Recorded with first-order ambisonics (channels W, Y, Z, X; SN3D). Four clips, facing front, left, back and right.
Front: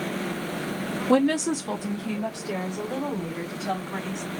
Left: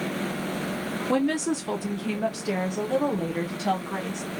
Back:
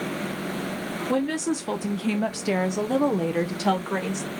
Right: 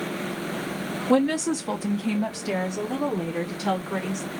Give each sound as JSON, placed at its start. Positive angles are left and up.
{"t": 1.1, "sound": "a woman speaking", "azimuth_deg": -10, "distance_m": 0.5}